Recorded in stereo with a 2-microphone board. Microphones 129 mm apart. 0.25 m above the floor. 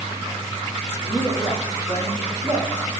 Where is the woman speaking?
15° right (ahead or behind), 6.5 m; by 2.9 s 25° right (ahead or behind), 9 m.